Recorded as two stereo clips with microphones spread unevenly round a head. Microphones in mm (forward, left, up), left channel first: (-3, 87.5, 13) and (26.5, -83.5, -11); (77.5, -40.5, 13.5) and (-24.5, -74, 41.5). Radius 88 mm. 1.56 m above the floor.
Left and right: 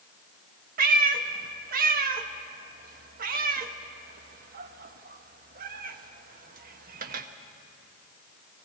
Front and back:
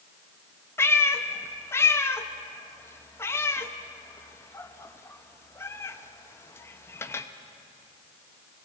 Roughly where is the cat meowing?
Ahead right.